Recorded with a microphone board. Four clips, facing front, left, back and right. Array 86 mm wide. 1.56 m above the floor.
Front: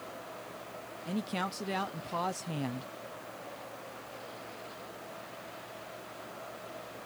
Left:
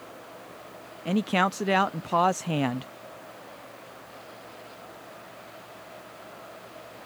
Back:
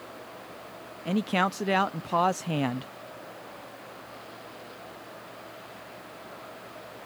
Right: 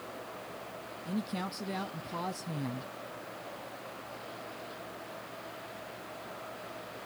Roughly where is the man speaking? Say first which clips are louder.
Left 12 dB, back 9 dB; behind left.